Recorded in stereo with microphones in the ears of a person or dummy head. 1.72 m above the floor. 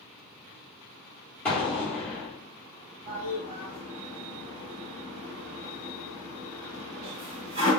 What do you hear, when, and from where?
1.4 s an explosion: 15° left (ahead or behind), 0.9 m
3.1 s a toilet flushing: 30° right (ahead or behind), 1.5 m